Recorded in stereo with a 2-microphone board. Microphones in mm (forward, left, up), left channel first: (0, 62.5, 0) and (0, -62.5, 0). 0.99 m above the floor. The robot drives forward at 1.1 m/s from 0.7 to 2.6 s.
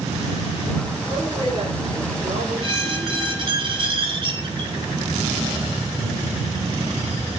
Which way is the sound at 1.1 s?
50° right (ahead or behind).